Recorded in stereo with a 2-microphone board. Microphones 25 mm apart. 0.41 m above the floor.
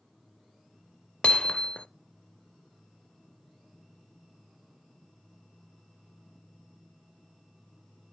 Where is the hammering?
45° left (ahead or behind), 0.5 m.